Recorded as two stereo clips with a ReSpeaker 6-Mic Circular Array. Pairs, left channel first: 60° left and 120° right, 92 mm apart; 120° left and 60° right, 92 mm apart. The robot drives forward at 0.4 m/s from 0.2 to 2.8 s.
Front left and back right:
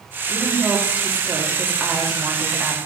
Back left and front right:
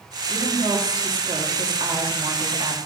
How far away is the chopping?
No chopping in this recording.